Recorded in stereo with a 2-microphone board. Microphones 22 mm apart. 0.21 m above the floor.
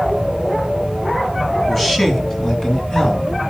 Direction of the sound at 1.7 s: 5° left (ahead or behind).